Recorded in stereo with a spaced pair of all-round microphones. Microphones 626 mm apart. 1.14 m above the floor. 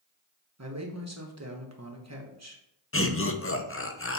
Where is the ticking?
No ticking in this recording.